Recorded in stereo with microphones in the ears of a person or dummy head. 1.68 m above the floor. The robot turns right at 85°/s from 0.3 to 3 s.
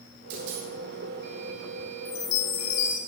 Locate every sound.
0.3 s a dropped coin: 90° right, 5 m; by 0.7 s 60° right, 5 m
2.0 s a chime: 40° left, 2.5 m; by 3.0 s 120° left, 2.5 m